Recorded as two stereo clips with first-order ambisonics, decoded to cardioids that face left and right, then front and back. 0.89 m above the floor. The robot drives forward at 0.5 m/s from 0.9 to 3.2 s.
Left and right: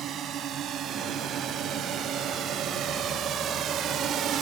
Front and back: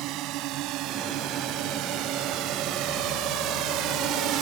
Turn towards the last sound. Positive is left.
turn(degrees=-140)